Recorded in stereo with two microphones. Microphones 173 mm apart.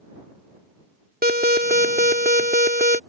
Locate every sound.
1.2 s an alarm: 65° right (ahead or behind)